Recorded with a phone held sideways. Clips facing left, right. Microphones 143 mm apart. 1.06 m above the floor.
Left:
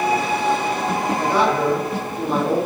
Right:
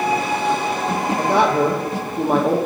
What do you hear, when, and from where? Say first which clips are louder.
1.2 s a man speaking: right 3 dB; 60° right (ahead or behind), 2 m